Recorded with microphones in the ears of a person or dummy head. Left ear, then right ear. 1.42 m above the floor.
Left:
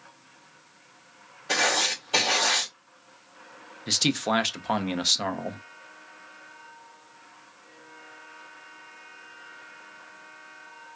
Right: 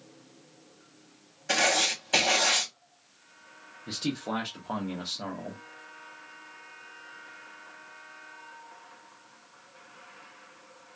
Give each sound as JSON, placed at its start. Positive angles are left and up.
{"t": 1.5, "sound": "writing", "side_deg": -50, "distance_m": 1.1}
{"t": 3.9, "sound": "a man speaking", "side_deg": 65, "distance_m": 0.6}